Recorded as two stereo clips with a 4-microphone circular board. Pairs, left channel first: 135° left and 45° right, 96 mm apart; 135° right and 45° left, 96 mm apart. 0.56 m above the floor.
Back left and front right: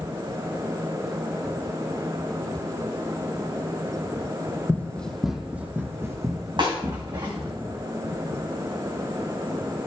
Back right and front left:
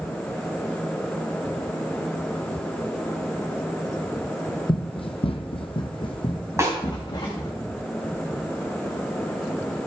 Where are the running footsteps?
160° right, 1.4 m; by 7.5 s 85° right, 3 m.